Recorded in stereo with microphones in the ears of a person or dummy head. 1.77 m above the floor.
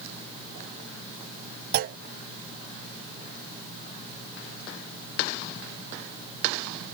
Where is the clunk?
50° right (ahead or behind).